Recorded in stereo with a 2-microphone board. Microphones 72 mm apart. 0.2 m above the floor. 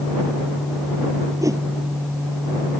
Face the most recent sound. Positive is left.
turn(degrees=-50)  # may be behind; listen again after turning